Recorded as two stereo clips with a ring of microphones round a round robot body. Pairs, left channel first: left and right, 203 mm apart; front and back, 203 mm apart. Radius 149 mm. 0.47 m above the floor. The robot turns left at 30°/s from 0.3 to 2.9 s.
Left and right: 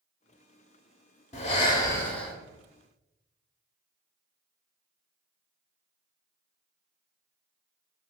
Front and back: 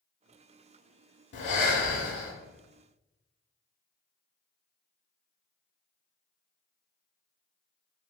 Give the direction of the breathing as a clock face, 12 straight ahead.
11 o'clock.